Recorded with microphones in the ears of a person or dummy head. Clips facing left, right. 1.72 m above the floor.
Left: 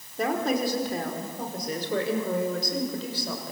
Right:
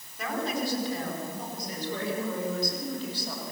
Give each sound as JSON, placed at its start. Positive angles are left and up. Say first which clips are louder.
{"t": 0.2, "sound": "a woman speaking", "louder": "left 5 dB", "side_deg": 35, "distance_m": 5.0}